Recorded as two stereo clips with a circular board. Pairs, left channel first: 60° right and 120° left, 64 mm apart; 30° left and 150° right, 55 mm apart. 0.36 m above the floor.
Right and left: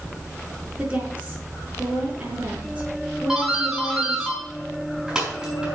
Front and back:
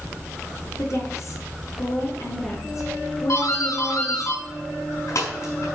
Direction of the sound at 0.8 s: 50° left.